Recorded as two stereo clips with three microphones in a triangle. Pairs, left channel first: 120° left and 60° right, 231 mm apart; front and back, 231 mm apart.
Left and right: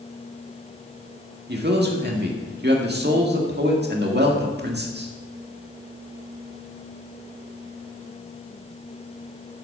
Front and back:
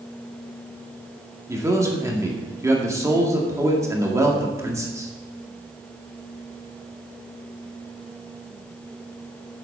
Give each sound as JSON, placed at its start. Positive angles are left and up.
{"t": 1.5, "sound": "a man speaking", "azimuth_deg": -105, "distance_m": 1.8}